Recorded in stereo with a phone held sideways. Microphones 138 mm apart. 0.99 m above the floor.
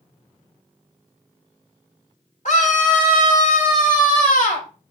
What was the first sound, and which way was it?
A scream, 70° left (ahead or behind).